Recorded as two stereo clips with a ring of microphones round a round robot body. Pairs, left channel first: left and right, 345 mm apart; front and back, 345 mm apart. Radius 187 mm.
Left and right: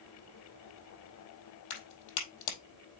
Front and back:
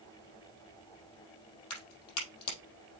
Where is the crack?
55° left, 4 m.